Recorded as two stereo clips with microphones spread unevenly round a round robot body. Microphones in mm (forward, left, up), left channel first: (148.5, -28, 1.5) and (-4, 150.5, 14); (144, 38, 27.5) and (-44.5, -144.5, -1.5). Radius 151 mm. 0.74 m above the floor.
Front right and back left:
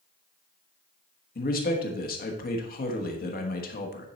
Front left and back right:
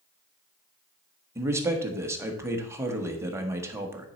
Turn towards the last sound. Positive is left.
turn(degrees=-70)